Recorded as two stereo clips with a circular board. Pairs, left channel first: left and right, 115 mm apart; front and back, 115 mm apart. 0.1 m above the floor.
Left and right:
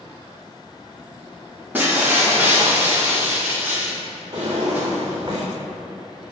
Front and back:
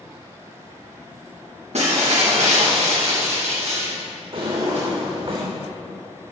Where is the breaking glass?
165° right, 4 m.